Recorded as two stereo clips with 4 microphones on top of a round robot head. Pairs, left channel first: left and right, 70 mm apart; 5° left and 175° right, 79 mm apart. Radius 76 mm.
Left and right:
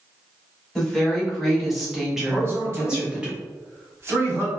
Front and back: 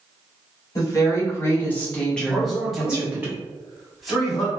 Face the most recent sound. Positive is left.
turn(degrees=-90)